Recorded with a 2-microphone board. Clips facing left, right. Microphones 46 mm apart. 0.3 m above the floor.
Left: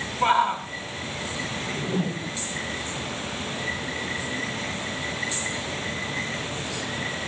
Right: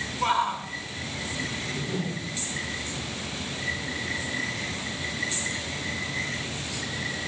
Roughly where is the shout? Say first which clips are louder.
Left 4 dB; left.